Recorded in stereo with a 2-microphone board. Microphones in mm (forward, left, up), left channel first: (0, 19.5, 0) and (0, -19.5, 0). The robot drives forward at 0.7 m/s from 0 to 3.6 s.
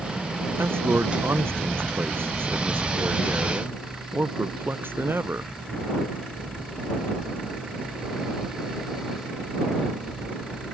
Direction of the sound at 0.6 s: 75° right (ahead or behind).